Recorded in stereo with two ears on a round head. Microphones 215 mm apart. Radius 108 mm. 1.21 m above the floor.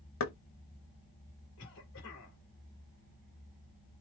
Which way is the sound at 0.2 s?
75° left (ahead or behind).